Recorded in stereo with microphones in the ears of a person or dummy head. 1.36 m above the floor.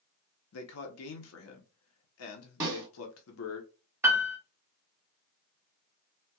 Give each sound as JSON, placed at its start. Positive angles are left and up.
{"t": 0.5, "sound": "a man speaking", "side_deg": 80, "distance_m": 0.9}
{"t": 2.6, "sound": "a snare drum", "side_deg": -15, "distance_m": 1.9}
{"t": 4.0, "sound": "a piano", "side_deg": -20, "distance_m": 0.7}